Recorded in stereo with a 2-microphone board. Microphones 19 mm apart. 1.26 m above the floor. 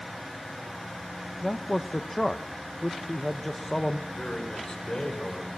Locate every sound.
1.4 s a man speaking: 25° left (ahead or behind), 0.7 m
4.1 s a man speaking: 35° left (ahead or behind), 5.5 m